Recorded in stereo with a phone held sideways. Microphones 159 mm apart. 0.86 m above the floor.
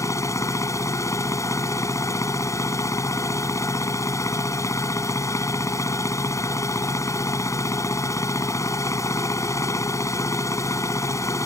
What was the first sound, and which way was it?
A machine running, 20° left (ahead or behind).